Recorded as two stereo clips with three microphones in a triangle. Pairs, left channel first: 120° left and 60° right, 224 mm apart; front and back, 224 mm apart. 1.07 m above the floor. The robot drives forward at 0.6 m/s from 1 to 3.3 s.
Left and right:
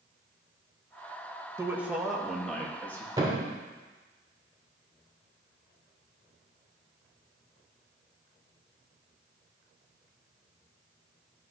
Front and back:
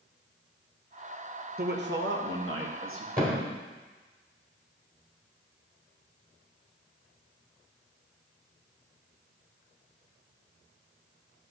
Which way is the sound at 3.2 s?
130° right.